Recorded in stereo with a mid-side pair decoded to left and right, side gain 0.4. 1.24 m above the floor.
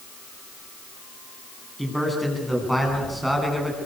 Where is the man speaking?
Straight ahead, 9.5 m; by 3.8 s 5° right, 10.5 m.